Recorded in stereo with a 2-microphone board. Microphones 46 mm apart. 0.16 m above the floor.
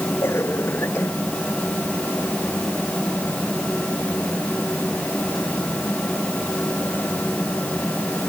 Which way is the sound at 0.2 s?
65° left (ahead or behind).